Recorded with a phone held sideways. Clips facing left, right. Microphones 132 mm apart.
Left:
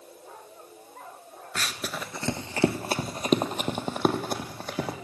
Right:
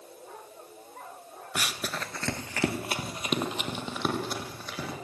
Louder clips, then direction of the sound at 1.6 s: Even; 15° right (ahead or behind).